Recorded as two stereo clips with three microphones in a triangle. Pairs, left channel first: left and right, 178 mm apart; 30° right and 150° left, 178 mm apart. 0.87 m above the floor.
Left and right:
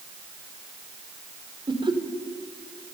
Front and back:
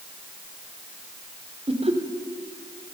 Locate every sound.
1.7 s laughter: 155° right, 2 m